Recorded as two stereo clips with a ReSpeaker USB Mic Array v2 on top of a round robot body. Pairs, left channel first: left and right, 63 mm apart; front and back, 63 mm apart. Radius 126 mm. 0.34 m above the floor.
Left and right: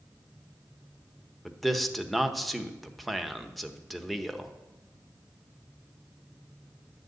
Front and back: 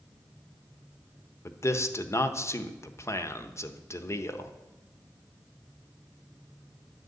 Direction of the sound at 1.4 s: Straight ahead.